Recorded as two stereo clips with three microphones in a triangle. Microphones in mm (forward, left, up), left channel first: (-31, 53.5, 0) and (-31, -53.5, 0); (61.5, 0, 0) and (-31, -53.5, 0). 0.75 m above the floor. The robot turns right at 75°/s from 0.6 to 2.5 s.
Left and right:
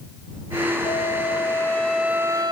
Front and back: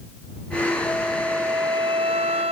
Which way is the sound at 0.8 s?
100° left.